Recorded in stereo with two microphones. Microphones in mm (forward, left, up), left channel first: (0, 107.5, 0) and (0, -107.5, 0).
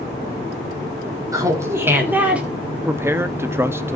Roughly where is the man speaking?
Centre.